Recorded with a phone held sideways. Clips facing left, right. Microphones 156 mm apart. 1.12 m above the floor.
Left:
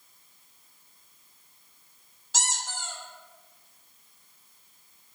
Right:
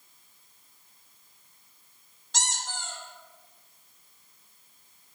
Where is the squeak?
5° left (ahead or behind), 0.7 m.